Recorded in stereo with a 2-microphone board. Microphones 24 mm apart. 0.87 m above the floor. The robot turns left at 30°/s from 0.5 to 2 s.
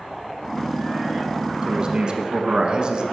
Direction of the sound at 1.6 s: 30° right (ahead or behind).